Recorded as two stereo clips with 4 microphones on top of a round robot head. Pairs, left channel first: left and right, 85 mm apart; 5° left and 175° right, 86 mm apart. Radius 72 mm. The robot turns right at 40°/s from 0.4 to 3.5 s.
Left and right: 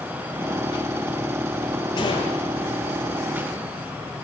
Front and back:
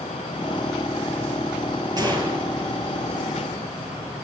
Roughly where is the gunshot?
Behind left.